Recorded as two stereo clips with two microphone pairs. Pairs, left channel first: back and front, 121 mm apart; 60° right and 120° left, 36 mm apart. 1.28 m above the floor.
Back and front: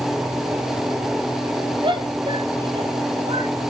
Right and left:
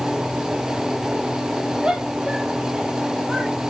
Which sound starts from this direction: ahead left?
A shout, at 1.8 s.